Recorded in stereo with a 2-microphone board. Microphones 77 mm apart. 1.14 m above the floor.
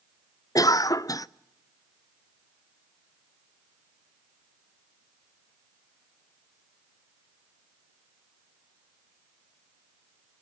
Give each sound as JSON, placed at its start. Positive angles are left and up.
{"t": 0.6, "sound": "a cough", "side_deg": 50, "distance_m": 0.5}